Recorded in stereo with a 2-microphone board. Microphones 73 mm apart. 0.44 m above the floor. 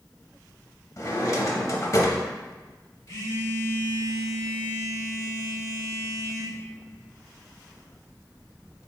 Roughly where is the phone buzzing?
Left.